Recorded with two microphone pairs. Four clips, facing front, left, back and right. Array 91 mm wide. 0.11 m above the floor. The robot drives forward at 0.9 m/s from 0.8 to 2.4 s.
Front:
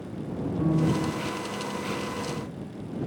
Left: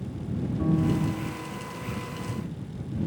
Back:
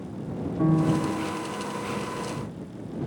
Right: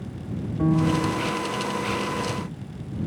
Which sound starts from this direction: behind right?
A piano, at 0.6 s.